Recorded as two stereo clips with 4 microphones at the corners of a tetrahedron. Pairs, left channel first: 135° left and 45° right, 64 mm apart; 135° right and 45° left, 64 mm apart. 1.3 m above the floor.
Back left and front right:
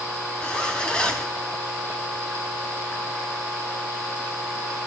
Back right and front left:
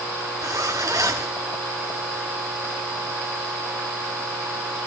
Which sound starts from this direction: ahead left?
A zipper, at 0.4 s.